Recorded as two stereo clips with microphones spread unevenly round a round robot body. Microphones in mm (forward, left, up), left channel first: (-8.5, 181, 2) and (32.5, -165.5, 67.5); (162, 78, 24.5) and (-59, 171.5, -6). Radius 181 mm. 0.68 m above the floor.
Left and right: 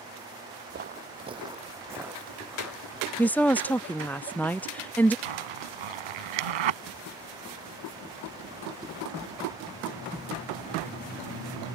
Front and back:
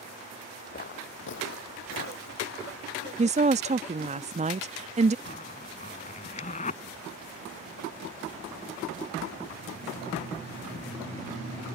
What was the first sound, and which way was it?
Footsteps, 50° right.